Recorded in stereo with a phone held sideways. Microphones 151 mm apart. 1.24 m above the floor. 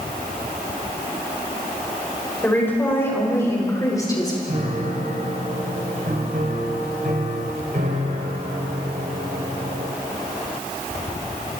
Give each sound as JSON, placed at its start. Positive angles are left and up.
{"t": 2.4, "sound": "a woman speaking", "side_deg": 15, "distance_m": 6.5}
{"t": 4.5, "sound": "a piano", "side_deg": -70, "distance_m": 4.0}